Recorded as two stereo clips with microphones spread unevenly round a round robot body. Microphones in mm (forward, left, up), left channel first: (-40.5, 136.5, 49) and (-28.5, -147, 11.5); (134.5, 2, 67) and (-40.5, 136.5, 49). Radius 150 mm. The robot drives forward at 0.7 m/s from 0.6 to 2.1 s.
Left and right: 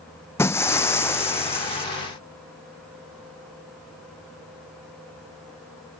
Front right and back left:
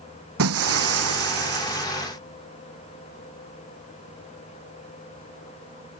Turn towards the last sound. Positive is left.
turn(degrees=175)